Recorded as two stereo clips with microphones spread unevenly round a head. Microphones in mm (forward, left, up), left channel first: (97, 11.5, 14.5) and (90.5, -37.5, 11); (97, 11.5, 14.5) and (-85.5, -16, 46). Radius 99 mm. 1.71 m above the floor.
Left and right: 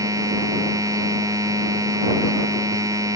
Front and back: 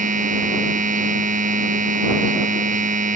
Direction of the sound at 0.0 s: 120° right.